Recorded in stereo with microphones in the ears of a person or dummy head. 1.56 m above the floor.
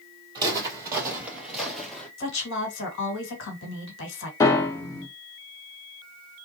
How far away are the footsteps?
About 2 m.